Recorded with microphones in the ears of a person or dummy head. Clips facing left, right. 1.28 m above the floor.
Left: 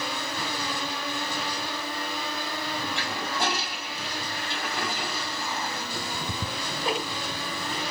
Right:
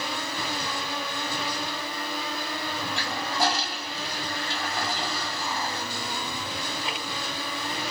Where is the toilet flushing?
35° right (ahead or behind), 3 m.